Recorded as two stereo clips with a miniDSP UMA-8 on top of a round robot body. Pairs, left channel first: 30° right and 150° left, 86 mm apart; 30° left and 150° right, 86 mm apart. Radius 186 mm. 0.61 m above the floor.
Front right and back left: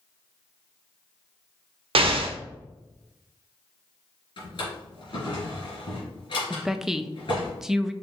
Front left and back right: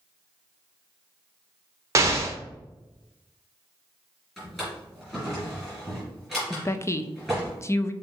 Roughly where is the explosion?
Behind left.